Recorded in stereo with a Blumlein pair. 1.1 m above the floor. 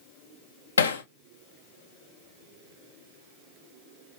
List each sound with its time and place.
0.8 s hammering: 70° left, 0.6 m